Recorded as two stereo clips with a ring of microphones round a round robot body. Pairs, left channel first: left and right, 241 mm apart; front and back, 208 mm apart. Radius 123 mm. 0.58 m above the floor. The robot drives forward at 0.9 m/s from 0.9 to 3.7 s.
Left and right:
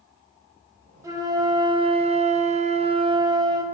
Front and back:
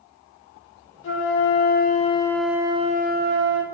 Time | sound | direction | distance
1.0 | a flute | 15° right | 1.4 m